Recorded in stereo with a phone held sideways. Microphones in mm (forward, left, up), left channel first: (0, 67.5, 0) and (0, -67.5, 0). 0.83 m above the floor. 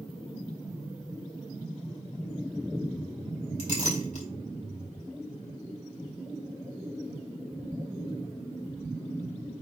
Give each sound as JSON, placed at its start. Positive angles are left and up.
{"t": 3.6, "sound": "a clink", "side_deg": 55, "distance_m": 3.5}